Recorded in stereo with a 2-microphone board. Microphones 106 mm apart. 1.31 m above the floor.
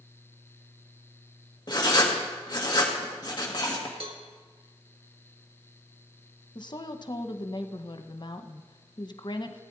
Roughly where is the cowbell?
Right.